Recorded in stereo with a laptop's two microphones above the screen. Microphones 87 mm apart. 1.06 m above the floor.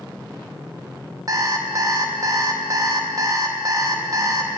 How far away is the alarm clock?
About 0.7 m.